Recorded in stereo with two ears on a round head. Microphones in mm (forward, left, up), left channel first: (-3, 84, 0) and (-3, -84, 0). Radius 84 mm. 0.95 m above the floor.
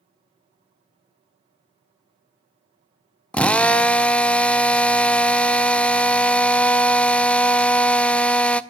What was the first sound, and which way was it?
A drill, 5° left (ahead or behind).